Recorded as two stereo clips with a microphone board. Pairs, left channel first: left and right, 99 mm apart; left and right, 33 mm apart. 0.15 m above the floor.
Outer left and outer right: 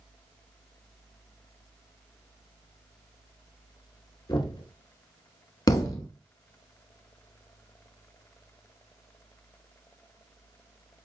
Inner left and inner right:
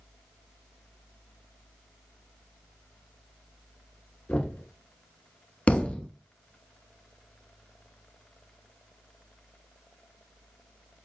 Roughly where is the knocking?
Left.